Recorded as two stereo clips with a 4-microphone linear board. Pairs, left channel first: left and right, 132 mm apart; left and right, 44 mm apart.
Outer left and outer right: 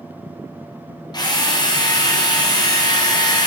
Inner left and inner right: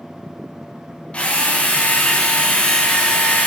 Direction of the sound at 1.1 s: 35° left (ahead or behind).